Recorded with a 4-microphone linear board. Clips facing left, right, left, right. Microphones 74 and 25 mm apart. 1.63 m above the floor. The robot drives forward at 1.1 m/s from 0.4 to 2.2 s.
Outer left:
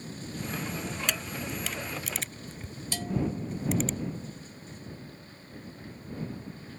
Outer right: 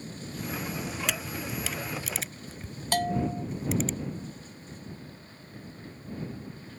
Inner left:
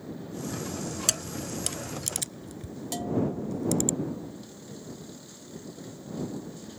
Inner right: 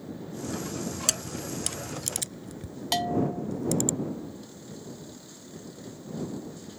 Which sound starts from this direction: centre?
A camera shutter, at 1.1 s.